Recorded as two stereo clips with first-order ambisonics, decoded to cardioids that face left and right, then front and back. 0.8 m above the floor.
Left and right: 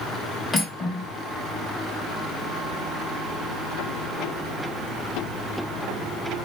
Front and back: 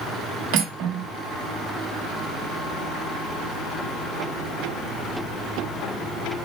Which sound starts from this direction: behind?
Cutlery clinking, at 0.5 s.